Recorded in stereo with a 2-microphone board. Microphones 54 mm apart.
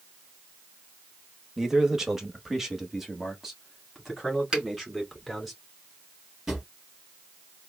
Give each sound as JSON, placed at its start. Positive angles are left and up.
{"t": 1.6, "sound": "a man speaking", "side_deg": -10, "distance_m": 1.0}
{"t": 4.5, "sound": "a finger snap", "side_deg": -15, "distance_m": 2.5}
{"t": 6.5, "sound": "a drawer", "side_deg": -10, "distance_m": 2.0}